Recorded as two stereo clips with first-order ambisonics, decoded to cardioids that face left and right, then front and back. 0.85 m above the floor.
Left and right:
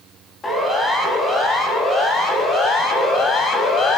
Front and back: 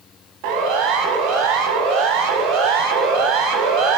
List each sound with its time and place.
0.4 s a siren: 170° left, 7.5 m; by 4.0 s 150° left, 6 m